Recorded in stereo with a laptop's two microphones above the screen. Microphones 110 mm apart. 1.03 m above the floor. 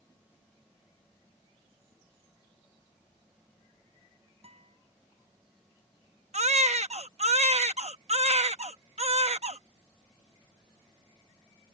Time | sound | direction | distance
4.4 | a guitar | 70° right (ahead or behind) | ?
6.3 | a baby crying | 85° right | ?